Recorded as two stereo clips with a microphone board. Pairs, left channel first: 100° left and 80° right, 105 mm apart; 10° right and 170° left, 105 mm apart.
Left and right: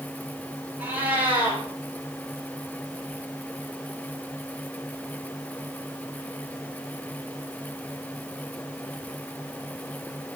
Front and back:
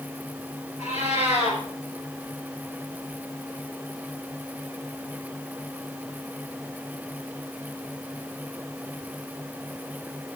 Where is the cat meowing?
5° right, 4.5 m.